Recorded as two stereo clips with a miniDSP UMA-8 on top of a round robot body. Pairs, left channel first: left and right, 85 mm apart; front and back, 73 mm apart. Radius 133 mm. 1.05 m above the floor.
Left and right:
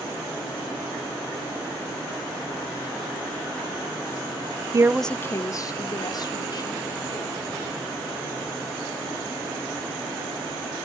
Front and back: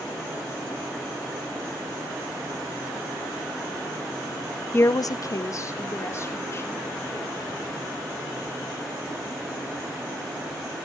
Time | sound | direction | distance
4.7 | a woman speaking | 55° right | 0.5 m